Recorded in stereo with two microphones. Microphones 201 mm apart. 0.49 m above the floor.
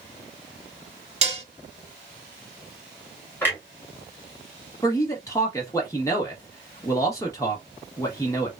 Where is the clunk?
10° left (ahead or behind), 1.7 m.